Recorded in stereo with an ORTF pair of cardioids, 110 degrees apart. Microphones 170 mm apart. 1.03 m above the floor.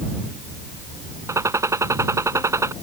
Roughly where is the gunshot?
Ahead.